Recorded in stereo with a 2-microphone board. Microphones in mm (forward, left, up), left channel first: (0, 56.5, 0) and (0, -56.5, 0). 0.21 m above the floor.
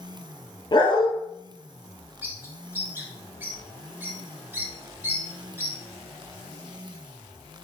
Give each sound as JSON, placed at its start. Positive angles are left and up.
{"t": 0.7, "sound": "a dog barking", "side_deg": 40, "distance_m": 0.8}
{"t": 2.2, "sound": "a bird", "side_deg": -20, "distance_m": 1.6}